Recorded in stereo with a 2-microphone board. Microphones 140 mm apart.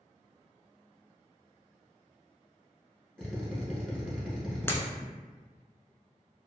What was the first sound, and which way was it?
A drill, 5° left (ahead or behind).